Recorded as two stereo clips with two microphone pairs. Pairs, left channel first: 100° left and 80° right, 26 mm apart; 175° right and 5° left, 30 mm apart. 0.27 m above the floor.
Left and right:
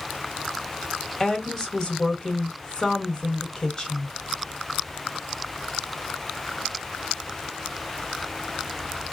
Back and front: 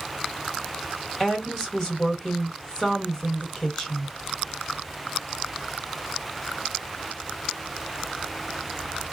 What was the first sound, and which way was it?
A woman speaking, 140° left.